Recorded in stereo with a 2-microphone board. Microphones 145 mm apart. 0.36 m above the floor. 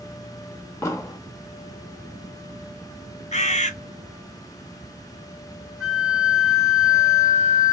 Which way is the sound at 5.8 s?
5° right (ahead or behind).